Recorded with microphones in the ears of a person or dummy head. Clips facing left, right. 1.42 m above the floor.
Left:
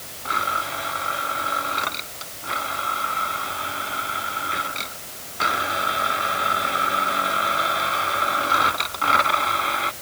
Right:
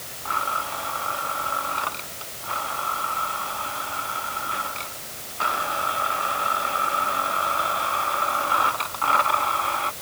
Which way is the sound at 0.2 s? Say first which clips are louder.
Left 2 dB; 30° left (ahead or behind).